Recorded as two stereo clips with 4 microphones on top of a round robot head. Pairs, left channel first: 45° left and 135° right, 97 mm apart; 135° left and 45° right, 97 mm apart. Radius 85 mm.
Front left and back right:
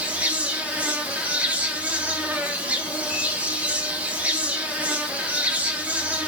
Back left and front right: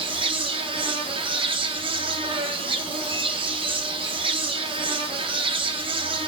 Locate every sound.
0.0 s an insect: 60° right, 0.8 m